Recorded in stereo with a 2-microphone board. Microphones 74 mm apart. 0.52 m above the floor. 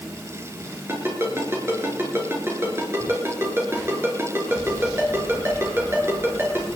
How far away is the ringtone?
About 4.5 m.